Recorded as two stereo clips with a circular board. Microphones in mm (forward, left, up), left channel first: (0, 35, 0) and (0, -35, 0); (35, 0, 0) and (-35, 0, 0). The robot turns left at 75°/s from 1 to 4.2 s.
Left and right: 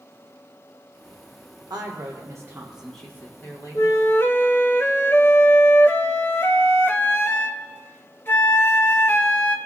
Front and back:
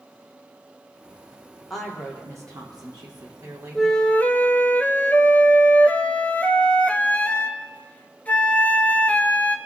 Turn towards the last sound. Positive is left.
turn(degrees=55)